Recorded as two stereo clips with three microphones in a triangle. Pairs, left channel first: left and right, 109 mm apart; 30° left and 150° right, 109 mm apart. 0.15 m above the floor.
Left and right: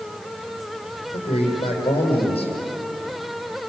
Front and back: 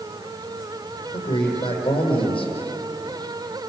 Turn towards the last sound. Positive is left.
turn(degrees=60)